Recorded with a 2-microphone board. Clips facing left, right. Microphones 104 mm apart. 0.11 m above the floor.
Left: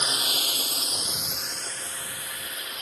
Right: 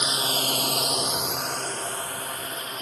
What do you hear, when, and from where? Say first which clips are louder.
0.0 s a drone: right 4 dB; 20° right (ahead or behind); by 2.8 s 40° right (ahead or behind)